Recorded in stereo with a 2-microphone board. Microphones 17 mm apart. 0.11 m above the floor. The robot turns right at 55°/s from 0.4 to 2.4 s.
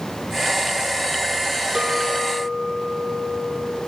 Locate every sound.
1.8 s a clink: 20° right (ahead or behind), 0.9 m; by 3.8 s 15° right (ahead or behind), 0.9 m